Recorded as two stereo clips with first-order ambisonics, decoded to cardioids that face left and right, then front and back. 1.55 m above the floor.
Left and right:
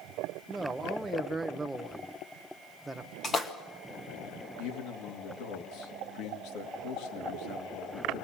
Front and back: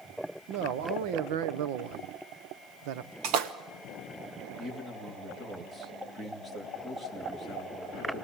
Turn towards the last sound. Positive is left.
turn(degrees=100)